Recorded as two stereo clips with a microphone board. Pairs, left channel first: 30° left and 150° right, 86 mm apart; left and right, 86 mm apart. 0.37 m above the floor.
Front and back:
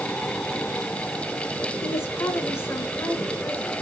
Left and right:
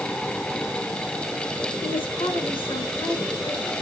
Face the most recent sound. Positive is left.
turn(degrees=90)